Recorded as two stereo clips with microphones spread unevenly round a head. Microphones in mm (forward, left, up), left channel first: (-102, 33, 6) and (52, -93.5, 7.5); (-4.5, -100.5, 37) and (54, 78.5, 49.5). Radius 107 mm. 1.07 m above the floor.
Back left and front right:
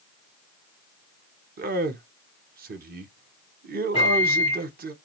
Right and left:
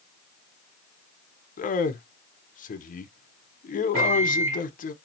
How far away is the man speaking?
About 0.8 m.